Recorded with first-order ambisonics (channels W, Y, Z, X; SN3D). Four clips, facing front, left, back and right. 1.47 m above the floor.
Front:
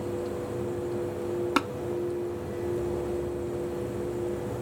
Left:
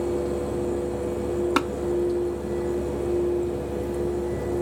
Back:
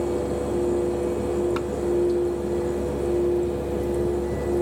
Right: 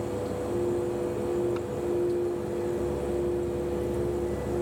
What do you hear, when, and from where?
1.6 s tapping: 60° left